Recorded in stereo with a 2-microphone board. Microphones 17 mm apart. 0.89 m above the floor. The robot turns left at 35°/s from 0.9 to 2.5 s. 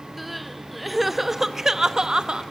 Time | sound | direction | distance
0.2 | crying | straight ahead | 0.8 m